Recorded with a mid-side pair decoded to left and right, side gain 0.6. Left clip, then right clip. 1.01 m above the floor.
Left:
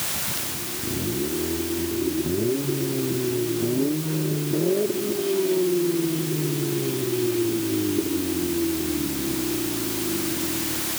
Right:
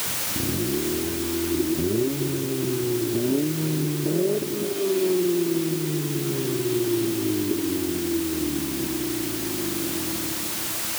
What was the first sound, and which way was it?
Only background noise.